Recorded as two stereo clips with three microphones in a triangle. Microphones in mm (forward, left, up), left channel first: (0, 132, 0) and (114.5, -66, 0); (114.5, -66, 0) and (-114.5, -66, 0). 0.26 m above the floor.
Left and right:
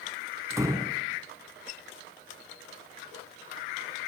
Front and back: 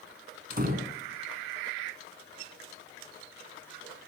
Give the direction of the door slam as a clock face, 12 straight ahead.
4 o'clock.